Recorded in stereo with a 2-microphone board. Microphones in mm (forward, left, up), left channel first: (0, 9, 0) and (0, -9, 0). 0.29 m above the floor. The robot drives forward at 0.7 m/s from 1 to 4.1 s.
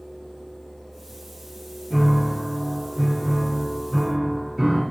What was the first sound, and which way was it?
A piano, 10° right (ahead or behind).